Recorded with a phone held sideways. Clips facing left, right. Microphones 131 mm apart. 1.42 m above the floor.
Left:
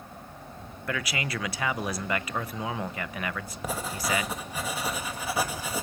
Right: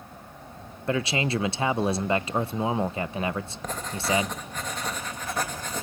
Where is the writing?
10° left (ahead or behind), 2.5 m.